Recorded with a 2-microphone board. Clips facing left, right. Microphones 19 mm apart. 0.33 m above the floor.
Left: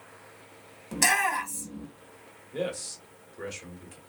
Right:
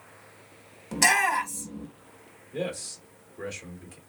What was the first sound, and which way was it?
A shout, 5° right (ahead or behind).